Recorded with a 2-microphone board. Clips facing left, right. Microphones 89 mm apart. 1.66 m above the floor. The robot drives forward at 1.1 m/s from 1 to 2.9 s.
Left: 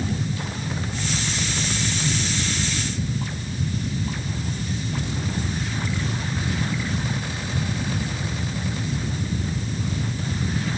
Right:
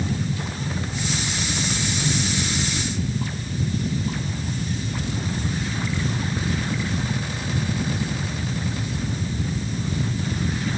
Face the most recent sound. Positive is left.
No sound to turn to.